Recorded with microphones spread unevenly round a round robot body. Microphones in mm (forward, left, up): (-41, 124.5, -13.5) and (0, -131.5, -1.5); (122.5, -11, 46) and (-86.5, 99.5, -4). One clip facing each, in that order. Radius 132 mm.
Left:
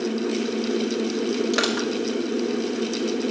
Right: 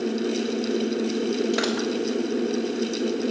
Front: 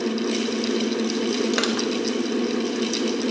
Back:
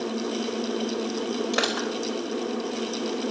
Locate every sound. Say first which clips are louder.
1.5 s crushing: left 1 dB, front 4 dB; 30° left, 3 m